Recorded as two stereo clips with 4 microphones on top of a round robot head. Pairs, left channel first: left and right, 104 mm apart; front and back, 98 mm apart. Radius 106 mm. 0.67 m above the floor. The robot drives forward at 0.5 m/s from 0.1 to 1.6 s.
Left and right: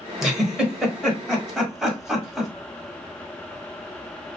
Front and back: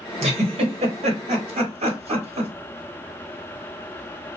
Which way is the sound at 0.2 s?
Straight behind.